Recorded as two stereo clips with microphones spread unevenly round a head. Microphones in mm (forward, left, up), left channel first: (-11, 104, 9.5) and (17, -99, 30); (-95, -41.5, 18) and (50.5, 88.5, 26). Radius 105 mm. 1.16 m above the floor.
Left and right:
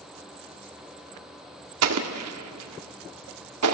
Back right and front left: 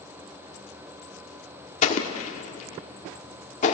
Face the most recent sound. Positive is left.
turn(degrees=-80)